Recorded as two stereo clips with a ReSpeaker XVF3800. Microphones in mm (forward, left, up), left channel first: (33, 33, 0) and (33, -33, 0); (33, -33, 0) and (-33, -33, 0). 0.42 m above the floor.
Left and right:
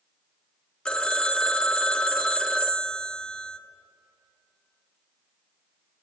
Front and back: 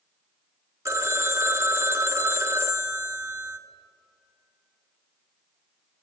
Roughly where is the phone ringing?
Behind.